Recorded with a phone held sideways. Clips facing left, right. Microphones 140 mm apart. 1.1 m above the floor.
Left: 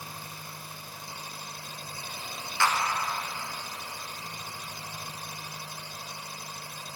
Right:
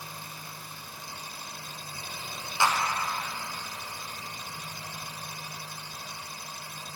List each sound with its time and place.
0.0 s an engine running: 45° left (ahead or behind), 1.3 m
2.6 s a clap: 20° right (ahead or behind), 0.7 m